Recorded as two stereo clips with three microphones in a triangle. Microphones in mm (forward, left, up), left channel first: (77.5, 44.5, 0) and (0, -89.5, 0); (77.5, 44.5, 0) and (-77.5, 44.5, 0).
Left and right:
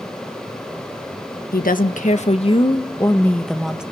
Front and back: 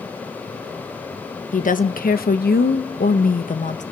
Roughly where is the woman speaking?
Ahead left.